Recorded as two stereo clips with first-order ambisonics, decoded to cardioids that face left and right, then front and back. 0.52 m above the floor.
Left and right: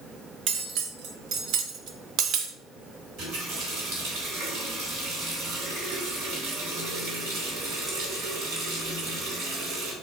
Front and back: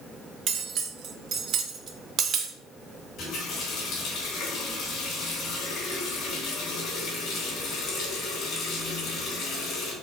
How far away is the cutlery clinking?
About 0.6 m.